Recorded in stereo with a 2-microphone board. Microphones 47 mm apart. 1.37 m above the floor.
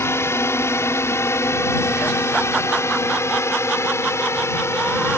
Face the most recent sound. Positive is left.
turn(degrees=70)  # may be behind; listen again after turning